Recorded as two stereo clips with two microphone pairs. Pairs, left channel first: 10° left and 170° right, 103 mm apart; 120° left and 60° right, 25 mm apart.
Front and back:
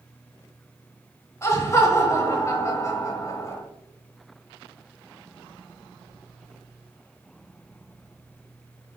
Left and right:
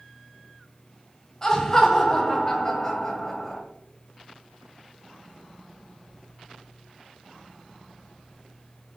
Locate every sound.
1.4 s laughter: 55° left, 1.1 m